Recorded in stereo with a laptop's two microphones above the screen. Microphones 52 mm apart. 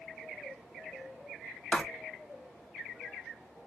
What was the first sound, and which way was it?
Writing, 20° left (ahead or behind).